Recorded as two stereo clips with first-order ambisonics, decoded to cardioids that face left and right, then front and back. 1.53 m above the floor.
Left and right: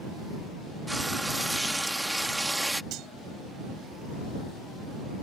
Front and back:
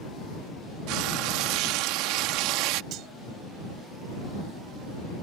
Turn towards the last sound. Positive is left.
turn(degrees=-135)